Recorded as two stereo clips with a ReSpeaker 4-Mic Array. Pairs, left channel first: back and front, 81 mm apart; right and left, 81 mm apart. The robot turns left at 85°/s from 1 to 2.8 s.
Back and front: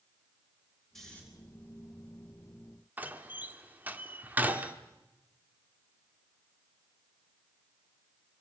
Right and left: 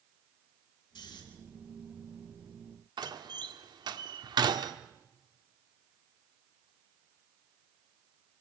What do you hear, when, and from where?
0.9 s snoring: 95° right, 4 m; by 1.2 s 110° right, 4 m
3.0 s a door slam: 70° left, 1.2 m